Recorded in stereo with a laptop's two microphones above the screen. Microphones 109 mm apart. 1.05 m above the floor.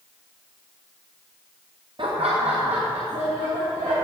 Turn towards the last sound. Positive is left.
turn(degrees=-80)